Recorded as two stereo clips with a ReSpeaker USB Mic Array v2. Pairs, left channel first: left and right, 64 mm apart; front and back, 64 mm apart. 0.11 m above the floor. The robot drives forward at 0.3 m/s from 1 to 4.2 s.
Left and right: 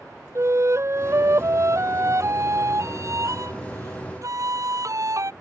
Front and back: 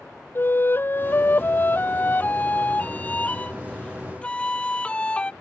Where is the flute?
50° right; by 5.3 s 70° right.